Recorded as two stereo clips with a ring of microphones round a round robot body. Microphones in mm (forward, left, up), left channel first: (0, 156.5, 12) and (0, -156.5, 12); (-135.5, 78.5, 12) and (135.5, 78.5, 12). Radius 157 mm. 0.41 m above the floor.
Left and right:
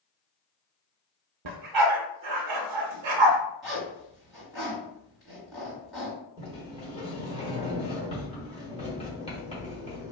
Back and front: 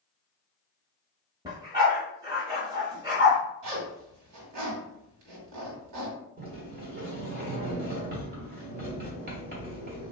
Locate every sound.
1.4 s a dog barking: 80° right, 0.7 m
3.6 s a zipper: straight ahead, 2.0 m
6.4 s a sliding door: 30° left, 1.2 m